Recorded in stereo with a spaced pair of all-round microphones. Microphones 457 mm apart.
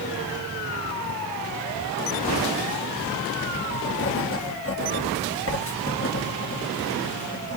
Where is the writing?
30° left (ahead or behind), 1.5 m.